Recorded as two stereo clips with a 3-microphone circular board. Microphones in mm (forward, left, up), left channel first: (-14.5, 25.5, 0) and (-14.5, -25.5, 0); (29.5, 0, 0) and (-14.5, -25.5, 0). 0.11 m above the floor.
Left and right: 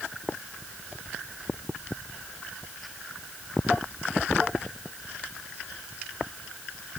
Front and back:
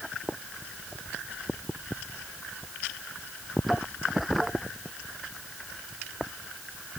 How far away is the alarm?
No alarm in this recording.